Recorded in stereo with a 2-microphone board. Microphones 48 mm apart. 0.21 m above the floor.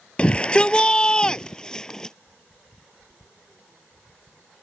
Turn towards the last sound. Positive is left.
turn(degrees=15)  # may be behind; listen again after turning